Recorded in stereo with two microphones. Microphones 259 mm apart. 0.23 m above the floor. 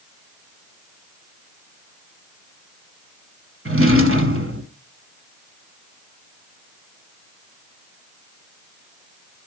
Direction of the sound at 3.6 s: 55° right (ahead or behind).